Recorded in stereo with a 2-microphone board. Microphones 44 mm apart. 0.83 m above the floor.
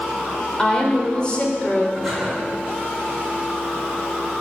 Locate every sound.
0.6 s a woman speaking: 15° left (ahead or behind), 2.5 m; by 1.9 s 30° left (ahead or behind), 2 m
1.9 s breathing: centre (ahead or behind), 5.5 m